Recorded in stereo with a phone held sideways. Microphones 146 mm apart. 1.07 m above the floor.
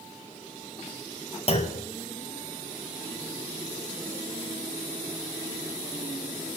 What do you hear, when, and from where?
1.5 s a clunk: 45° left (ahead or behind), 1.2 m